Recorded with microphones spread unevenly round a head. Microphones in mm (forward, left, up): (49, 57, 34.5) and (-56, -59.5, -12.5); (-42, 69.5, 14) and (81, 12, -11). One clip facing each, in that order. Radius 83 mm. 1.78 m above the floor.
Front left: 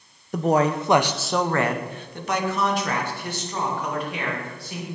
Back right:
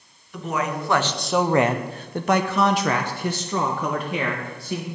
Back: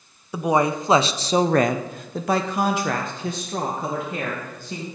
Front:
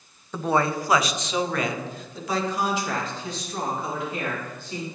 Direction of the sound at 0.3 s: 80° left.